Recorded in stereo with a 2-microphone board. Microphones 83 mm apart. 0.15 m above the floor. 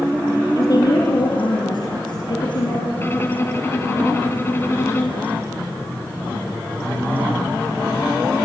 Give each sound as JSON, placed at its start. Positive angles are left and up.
{"t": 0.6, "sound": "a woman speaking", "side_deg": 45, "distance_m": 2.0}
{"t": 3.0, "sound": "a violin", "side_deg": 30, "distance_m": 1.3}